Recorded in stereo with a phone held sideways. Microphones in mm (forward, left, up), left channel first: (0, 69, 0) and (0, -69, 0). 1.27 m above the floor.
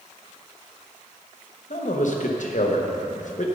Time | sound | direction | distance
1.7 | a man speaking | 65° left (ahead or behind) | 1.1 m